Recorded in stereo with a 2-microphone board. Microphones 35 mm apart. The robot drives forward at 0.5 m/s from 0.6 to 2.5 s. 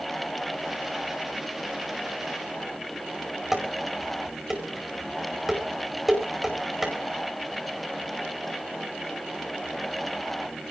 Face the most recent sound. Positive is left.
turn(degrees=-10)  # may be behind; listen again after turning